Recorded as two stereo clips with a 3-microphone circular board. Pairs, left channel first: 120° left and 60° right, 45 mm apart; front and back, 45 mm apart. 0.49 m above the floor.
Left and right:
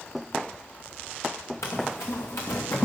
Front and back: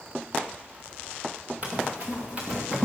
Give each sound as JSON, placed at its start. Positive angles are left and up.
{"t": 1.6, "sound": "running footsteps", "azimuth_deg": 125, "distance_m": 3.0}